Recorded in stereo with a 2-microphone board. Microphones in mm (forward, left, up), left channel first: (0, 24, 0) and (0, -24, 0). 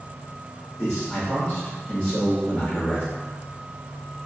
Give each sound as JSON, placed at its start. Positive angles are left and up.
{"t": 0.8, "sound": "a man speaking", "side_deg": 25, "distance_m": 1.3}